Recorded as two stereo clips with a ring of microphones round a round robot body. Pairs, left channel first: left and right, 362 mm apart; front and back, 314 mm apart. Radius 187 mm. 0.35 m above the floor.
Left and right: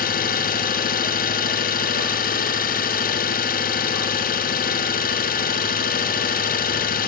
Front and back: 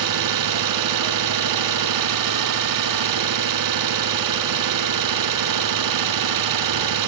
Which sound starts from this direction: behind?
An engine running, at 0.0 s.